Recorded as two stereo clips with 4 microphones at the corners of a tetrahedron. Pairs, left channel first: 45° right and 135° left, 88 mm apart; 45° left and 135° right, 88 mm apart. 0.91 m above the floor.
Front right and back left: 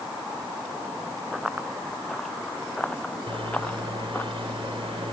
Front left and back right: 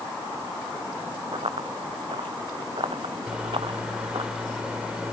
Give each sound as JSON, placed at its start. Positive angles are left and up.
{"t": 1.3, "sound": "running footsteps", "azimuth_deg": -140}
{"t": 3.3, "sound": "a microwave", "azimuth_deg": 145}